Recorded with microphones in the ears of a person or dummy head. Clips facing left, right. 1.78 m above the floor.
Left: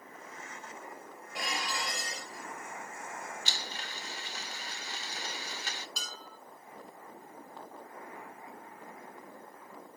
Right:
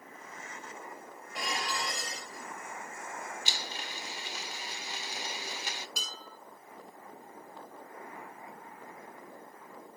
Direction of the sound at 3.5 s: 15° right (ahead or behind).